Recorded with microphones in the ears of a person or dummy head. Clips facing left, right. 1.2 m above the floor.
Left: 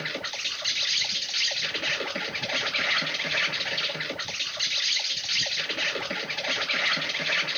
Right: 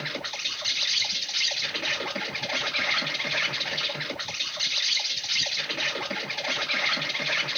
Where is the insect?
10° left (ahead or behind), 0.9 m.